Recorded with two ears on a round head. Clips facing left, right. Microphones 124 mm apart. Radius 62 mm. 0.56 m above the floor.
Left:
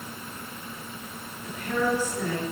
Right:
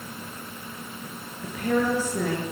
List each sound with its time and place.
1.4 s a woman speaking: 45° right (ahead or behind), 9.5 m